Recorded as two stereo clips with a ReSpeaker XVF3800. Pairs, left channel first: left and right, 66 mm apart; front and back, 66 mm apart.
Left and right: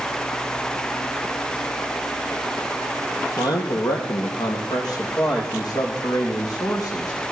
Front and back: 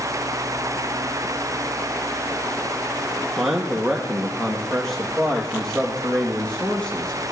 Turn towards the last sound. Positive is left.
turn(degrees=75)